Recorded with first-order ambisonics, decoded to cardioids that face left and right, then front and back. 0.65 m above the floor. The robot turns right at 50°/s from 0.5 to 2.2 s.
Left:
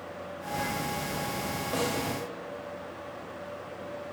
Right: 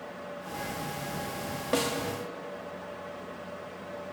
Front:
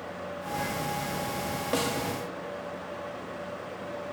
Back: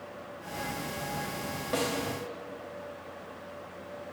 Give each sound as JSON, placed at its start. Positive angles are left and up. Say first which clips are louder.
{"t": 1.7, "sound": "a snare drum", "louder": "right 3 dB, front 1 dB", "azimuth_deg": -60, "distance_m": 1.1}